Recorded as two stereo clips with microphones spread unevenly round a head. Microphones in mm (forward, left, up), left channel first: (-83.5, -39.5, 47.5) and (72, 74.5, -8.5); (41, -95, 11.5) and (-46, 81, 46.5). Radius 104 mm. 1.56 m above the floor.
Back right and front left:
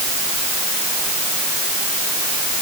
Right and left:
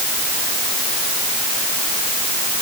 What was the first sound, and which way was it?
Only background noise.